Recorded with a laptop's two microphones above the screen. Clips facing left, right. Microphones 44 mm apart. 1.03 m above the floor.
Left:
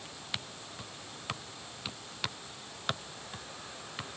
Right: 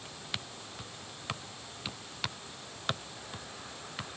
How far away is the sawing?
I don't hear sawing.